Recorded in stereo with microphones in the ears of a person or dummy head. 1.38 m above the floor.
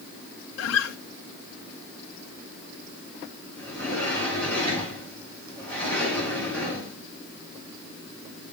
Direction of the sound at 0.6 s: 75° left (ahead or behind).